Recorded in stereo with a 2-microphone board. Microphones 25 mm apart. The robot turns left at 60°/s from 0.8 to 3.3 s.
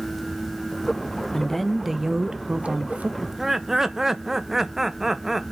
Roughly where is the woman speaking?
Ahead.